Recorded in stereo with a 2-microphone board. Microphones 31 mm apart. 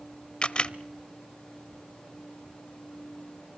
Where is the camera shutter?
30° left (ahead or behind), 0.7 m.